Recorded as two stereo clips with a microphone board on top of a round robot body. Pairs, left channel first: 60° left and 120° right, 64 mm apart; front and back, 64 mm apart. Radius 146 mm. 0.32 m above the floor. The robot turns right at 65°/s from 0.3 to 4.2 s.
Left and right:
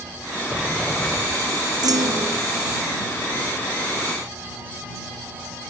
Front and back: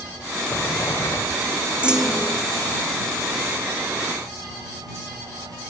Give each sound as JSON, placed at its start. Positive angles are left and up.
{"t": 0.5, "sound": "a sliding door", "azimuth_deg": -55}
{"t": 1.8, "sound": "a clunk", "azimuth_deg": -110}